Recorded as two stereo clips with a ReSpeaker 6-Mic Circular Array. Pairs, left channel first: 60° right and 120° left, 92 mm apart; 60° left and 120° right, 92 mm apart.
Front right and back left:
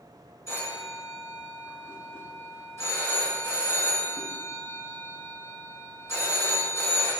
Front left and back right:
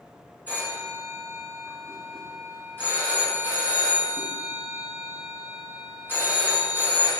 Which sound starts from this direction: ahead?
A phone ringing, at 0.5 s.